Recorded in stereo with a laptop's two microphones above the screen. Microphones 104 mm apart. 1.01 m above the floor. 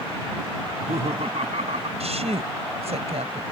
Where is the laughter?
85° right; by 1.9 s 90° right.